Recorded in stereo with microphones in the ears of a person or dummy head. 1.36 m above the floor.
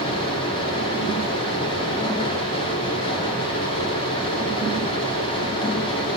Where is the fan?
25° left (ahead or behind), 4 m.